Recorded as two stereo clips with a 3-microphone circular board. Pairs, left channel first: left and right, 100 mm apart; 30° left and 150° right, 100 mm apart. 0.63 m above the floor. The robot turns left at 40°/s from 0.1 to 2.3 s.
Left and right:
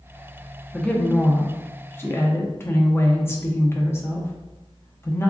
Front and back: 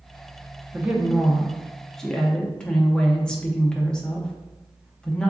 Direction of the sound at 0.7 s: 160° left.